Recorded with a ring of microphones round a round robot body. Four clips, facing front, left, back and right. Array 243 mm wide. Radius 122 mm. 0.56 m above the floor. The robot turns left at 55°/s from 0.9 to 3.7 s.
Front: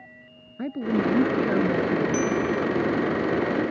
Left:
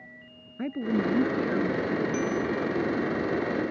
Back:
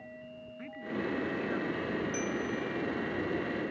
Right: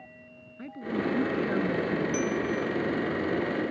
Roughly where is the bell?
Ahead right.